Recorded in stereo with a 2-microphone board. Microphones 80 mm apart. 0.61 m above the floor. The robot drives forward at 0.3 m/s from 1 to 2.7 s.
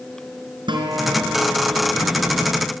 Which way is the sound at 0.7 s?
85° right.